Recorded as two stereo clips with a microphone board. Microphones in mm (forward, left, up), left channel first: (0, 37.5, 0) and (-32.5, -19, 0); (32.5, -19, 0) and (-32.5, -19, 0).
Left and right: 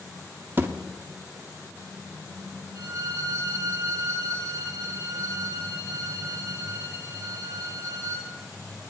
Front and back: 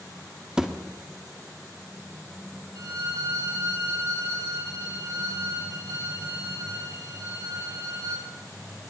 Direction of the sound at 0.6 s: 115° right.